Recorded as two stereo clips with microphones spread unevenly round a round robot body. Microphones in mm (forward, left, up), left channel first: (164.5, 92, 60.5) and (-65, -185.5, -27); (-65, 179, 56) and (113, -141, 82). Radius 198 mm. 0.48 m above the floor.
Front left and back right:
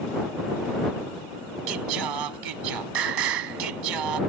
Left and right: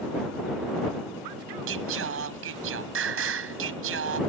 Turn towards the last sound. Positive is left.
turn(degrees=-120)